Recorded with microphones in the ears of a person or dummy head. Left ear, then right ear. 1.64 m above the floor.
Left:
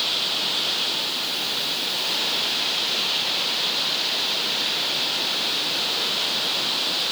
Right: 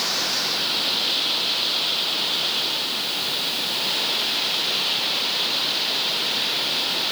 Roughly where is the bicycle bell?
No bicycle bell in this recording.